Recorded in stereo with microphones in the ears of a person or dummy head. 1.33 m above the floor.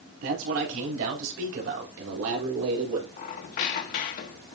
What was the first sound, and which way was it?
A man speaking, 80° right.